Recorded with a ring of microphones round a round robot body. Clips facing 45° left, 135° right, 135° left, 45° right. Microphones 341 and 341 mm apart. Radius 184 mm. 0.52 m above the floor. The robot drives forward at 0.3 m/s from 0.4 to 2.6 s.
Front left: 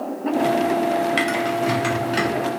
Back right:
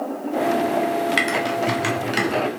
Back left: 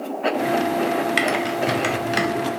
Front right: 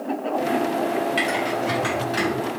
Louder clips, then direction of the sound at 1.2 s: Front left 1 dB, back left 2 dB; 145° left.